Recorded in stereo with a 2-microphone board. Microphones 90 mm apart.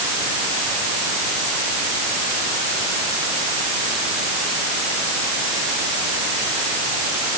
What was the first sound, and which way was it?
Only background noise.